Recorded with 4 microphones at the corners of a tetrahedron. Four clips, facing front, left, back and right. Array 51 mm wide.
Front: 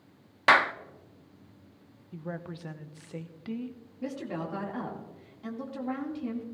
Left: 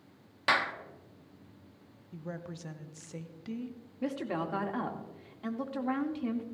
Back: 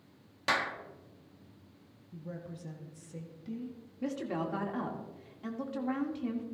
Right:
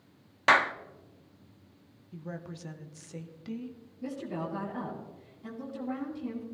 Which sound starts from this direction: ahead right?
A clap, at 0.5 s.